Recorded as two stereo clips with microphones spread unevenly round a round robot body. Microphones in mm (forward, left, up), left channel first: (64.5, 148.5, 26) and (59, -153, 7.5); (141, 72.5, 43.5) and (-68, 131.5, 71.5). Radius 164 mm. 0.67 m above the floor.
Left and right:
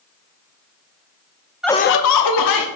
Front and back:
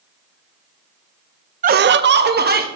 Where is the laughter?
165° right, 0.5 m; by 2.7 s 115° left, 1.7 m.